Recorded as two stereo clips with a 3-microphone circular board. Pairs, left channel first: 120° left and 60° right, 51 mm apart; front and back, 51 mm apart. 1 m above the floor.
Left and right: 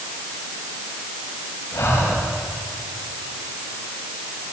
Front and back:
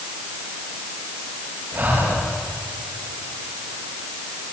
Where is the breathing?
140° left, 9 m.